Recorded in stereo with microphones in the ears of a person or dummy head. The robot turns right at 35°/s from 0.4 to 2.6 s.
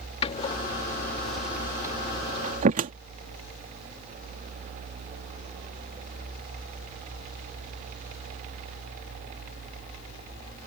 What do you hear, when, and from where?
0.2 s a door slam: 35° left (ahead or behind); by 2.9 s 45° right (ahead or behind)